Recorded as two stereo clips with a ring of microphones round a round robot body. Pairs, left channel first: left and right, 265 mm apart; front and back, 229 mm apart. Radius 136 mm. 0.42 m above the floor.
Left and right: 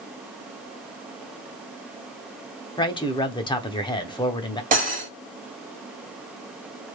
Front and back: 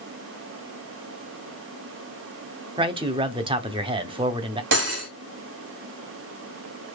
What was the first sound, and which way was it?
A man speaking, 140° left.